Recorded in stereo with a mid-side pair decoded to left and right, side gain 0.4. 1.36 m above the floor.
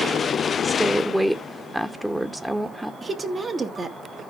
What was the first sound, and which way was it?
A woman speaking, 5° right.